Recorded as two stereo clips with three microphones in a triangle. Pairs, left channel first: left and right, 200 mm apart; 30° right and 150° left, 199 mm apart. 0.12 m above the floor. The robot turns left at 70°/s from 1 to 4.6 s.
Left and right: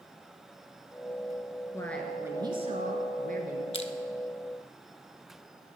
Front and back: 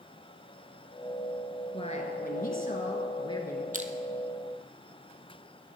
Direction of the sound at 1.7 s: 20° left.